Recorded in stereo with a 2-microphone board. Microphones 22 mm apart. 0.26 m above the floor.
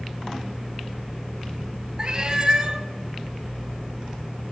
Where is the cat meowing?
35° right (ahead or behind), 0.6 m.